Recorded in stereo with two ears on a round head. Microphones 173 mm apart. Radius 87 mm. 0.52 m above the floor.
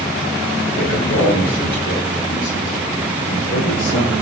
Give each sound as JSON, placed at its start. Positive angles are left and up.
{"t": 0.8, "sound": "a man speaking", "side_deg": 70, "distance_m": 8.5}